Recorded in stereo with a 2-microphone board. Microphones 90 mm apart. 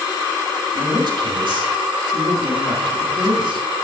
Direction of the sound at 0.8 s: 65° right (ahead or behind).